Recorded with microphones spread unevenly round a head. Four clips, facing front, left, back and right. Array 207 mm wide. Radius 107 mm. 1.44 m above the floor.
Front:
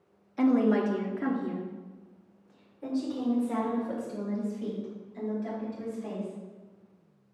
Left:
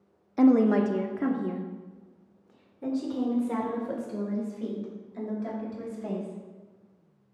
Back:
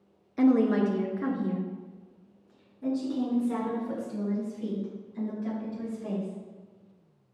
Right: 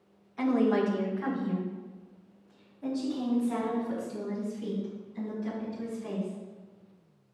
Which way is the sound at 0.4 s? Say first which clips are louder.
Left 5 dB, back 1 dB; 110° left.